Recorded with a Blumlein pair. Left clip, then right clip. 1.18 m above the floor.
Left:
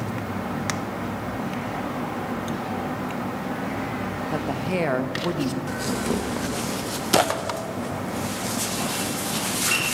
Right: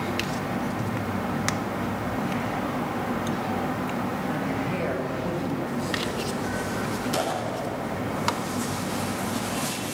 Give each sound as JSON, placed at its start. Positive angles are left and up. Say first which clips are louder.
{"t": 4.3, "sound": "a woman speaking", "louder": "left 2 dB", "azimuth_deg": 25, "distance_m": 1.2}
{"t": 5.7, "sound": "tearing paper", "louder": "left 2 dB", "azimuth_deg": 60, "distance_m": 0.9}